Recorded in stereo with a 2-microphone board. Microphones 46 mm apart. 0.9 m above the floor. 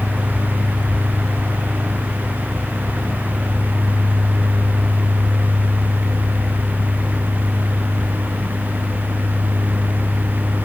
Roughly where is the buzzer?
I don't hear a buzzer.